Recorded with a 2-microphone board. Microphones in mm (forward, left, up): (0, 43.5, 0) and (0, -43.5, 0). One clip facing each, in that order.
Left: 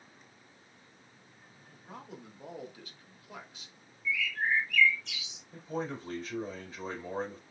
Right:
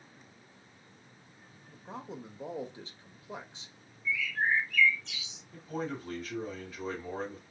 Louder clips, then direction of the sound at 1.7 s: Right 4 dB; 30° right (ahead or behind).